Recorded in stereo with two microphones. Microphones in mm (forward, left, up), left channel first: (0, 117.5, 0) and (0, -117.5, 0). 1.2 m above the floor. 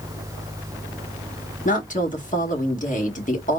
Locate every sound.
1.6 s a woman speaking: 35° left (ahead or behind), 1.5 m